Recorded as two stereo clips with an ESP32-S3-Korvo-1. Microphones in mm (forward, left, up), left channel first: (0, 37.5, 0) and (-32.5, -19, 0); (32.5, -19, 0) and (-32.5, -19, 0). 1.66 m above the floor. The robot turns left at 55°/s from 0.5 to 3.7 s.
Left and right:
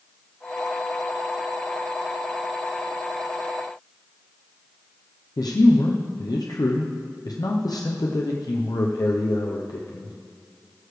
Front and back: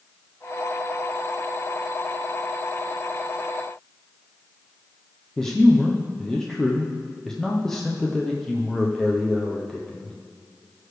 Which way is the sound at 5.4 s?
80° left.